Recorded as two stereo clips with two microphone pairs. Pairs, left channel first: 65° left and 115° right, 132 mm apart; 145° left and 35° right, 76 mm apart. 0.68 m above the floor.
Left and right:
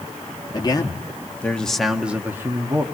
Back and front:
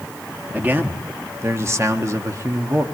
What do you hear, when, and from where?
0.5 s a man speaking: 25° left, 1.5 m; by 2.9 s 60° right, 1.5 m